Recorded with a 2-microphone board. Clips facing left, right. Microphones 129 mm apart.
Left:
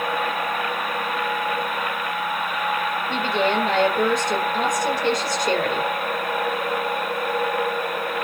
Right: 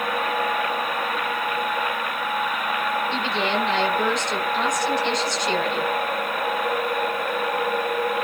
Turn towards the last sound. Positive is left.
turn(degrees=45)  # may be behind; listen again after turning